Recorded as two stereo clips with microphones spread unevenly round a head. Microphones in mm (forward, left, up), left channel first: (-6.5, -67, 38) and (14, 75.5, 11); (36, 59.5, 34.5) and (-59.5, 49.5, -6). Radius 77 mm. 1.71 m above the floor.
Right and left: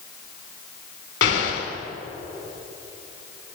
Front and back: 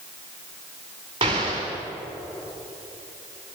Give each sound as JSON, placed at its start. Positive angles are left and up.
{"t": 1.2, "sound": "an explosion", "azimuth_deg": -115, "distance_m": 4.5}